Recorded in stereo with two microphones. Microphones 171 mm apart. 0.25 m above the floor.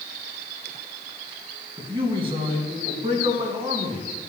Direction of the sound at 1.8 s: 30° right (ahead or behind).